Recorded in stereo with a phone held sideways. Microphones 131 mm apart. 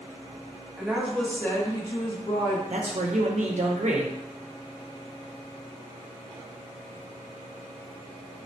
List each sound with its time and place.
0.8 s a woman speaking: 10° right (ahead or behind), 0.7 m; by 2.6 s 35° left (ahead or behind), 0.8 m
2.7 s a man speaking: 65° right (ahead or behind), 0.5 m